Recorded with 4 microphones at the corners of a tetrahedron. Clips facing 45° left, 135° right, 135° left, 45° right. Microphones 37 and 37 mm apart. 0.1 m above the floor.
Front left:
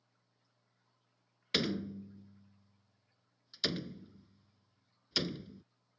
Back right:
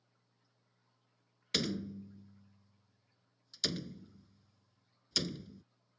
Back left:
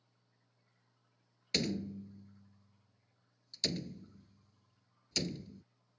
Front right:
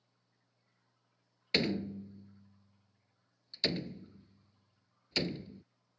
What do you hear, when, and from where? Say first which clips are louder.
1.5 s a door slam: front left 2 dB, front right 4 dB; 15° right